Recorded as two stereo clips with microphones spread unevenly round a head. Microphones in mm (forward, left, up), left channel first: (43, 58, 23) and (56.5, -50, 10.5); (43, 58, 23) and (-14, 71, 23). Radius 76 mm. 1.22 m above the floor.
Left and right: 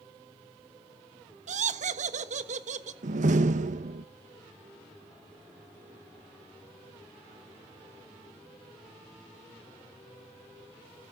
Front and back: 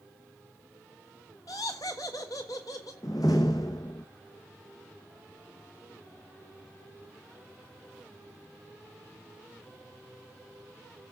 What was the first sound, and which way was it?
Laughter, 75° right.